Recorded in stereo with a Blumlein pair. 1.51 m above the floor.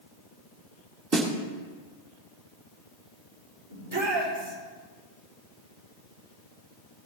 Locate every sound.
1.1 s a snare drum: 25° right, 1.7 m
3.7 s a shout: 60° right, 4.5 m